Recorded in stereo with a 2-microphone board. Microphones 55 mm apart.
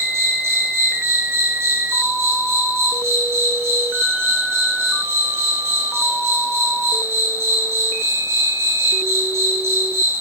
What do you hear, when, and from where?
0.0 s an insect: 50° right (ahead or behind), 3.5 m